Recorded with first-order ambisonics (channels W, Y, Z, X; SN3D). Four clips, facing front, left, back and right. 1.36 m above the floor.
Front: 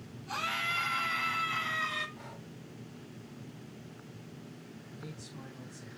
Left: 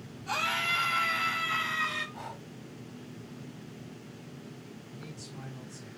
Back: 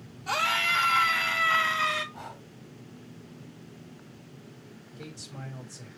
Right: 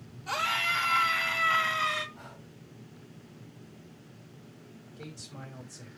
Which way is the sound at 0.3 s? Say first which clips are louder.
Right 1 dB, back 8 dB; 165° right.